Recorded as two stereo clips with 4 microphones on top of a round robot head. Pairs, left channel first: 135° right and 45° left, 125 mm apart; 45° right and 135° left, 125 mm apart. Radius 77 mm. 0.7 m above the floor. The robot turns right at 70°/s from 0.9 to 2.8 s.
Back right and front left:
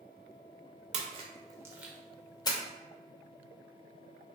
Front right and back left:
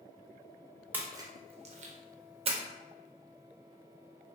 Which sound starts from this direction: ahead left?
A splash, at 0.9 s.